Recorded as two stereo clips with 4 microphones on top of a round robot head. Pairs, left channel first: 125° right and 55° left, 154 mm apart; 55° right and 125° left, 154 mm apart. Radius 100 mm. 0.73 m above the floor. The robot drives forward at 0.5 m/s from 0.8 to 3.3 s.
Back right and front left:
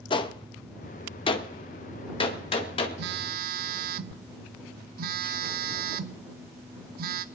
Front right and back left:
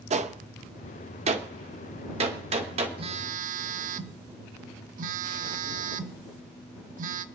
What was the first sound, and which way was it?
A gunshot, 175° left.